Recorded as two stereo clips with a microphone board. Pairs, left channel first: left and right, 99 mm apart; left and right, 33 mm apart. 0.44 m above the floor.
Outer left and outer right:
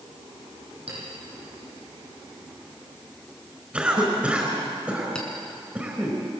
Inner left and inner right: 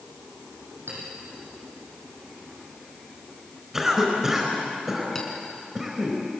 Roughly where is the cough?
Centre.